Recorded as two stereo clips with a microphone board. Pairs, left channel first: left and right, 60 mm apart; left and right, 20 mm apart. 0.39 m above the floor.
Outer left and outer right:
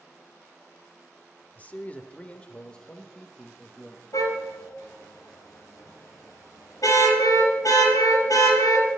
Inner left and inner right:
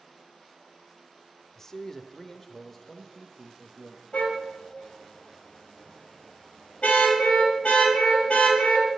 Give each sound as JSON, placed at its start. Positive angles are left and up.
{"t": 1.6, "sound": "a man speaking", "side_deg": 25, "distance_m": 0.8}
{"t": 4.1, "sound": "a car horn", "side_deg": 75, "distance_m": 5.5}